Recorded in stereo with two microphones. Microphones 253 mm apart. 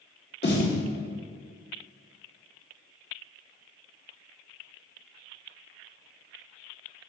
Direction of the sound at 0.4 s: 45° left (ahead or behind).